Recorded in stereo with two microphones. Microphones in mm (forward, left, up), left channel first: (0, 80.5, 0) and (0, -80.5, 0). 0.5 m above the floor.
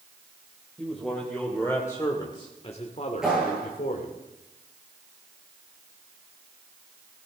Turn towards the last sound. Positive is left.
turn(degrees=-5)  # may be behind; listen again after turning